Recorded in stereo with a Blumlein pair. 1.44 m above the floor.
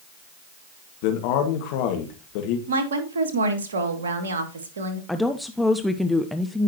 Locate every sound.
1.0 s a man speaking: 45° left, 1.8 m
2.7 s a woman speaking: 65° right, 2.5 m
5.1 s a woman speaking: 5° left, 0.7 m